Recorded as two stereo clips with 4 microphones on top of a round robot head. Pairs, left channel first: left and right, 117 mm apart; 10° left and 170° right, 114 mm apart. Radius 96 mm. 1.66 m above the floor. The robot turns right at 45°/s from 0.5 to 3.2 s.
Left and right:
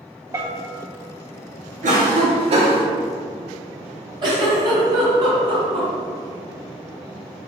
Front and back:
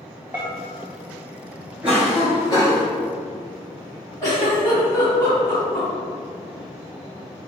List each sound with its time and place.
0.3 s a bell: 115° right, 0.8 m; by 0.7 s 105° right, 0.8 m
1.8 s a cough: 90° right, 1.6 m; by 2.9 s 45° right, 1.6 m
4.2 s a giggle: 60° right, 2 m